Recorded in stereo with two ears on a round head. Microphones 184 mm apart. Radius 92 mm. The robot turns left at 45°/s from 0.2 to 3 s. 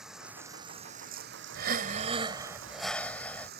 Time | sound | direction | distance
0.0 | running water | 5° right | ?
1.6 | breathing | 120° right | ?